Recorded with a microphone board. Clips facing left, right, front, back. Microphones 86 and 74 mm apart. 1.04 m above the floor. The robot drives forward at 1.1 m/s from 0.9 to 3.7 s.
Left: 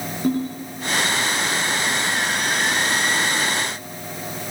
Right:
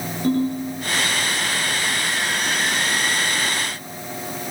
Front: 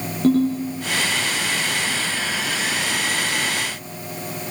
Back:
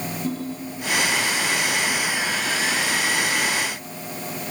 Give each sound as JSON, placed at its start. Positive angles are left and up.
{"t": 0.2, "sound": "a ringtone", "azimuth_deg": 15, "distance_m": 7.5}